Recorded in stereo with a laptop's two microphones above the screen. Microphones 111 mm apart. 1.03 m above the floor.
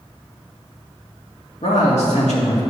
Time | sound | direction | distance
1.6 | a man speaking | 80° left | 1.8 m